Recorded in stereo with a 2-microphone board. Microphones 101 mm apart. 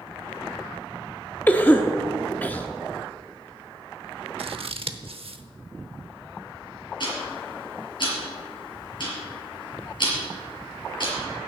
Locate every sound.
1.5 s a cough: 20° left (ahead or behind), 0.7 m
4.4 s scissors: 65° right (ahead or behind), 0.8 m
7.0 s ticking: 50° left (ahead or behind), 4.5 m